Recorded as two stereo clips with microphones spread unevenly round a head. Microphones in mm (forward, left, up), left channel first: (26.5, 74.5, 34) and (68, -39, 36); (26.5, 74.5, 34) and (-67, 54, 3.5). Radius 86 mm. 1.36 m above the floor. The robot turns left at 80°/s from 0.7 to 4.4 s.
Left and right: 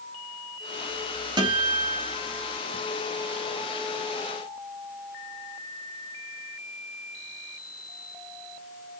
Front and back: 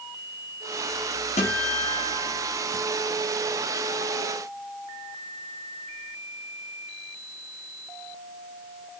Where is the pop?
No pop in this recording.